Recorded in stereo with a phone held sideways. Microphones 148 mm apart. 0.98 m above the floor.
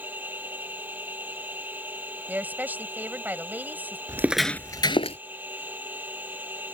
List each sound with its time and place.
0.0 s a machine running: 10° right (ahead or behind)
2.3 s a woman speaking: 10° right (ahead or behind)
4.1 s footsteps: 20° right (ahead or behind); by 5.2 s 45° left (ahead or behind)